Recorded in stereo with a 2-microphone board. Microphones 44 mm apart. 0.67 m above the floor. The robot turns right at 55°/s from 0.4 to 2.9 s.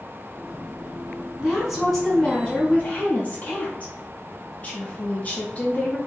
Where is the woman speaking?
20° right, 0.9 m; by 6.0 s 60° left, 0.9 m.